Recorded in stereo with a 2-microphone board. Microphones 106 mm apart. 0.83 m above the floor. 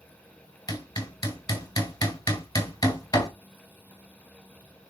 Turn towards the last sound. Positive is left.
turn(degrees=35)  # may be behind; listen again after turning